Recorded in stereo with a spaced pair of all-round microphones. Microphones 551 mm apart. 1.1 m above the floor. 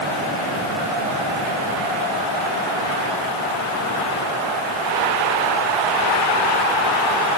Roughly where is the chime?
No chime in this recording.